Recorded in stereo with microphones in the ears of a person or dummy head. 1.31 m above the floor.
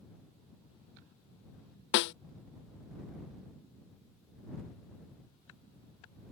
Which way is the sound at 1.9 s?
60° left (ahead or behind).